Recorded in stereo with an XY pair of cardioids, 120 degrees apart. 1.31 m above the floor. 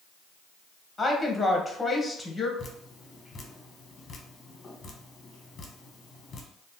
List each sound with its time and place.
1.0 s a woman speaking: 15° left, 0.9 m
2.6 s dripping: 35° left, 0.7 m